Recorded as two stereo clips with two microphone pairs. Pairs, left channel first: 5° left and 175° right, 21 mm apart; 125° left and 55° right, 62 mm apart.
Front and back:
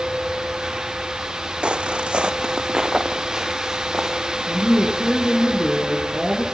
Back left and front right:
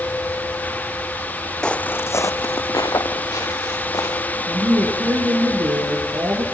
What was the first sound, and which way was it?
Footsteps, 160° right.